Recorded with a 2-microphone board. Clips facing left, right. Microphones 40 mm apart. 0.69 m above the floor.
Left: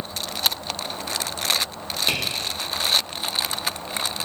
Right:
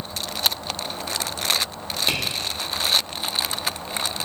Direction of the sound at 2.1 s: 5° right (ahead or behind).